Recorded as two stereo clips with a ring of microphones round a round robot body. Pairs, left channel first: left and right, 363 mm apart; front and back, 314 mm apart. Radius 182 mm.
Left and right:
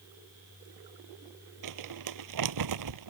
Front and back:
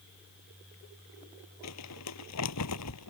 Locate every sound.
1.6 s crumpling: 50° right